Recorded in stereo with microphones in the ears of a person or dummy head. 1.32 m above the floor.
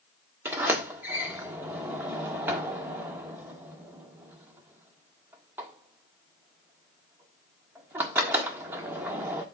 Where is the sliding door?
10° right (ahead or behind), 1.3 m.